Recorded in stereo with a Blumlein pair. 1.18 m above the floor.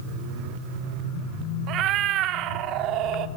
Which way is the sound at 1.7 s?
35° right.